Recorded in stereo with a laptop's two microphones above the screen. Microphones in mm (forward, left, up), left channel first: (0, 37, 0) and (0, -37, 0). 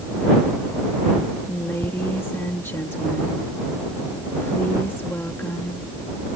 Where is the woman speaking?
35° left (ahead or behind).